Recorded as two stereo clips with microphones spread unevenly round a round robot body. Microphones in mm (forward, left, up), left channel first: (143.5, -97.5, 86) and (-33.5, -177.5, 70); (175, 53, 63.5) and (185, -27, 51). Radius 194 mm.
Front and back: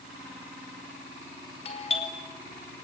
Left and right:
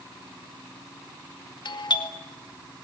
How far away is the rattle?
No rattle in this recording.